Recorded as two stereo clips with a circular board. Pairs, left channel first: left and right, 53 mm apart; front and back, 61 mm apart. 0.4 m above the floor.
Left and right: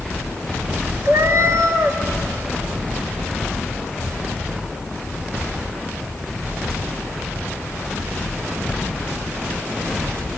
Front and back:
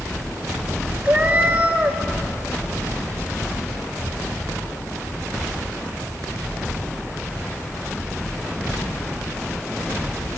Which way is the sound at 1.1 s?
115° right.